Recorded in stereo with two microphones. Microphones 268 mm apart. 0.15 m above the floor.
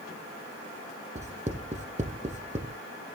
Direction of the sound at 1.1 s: 25° right (ahead or behind).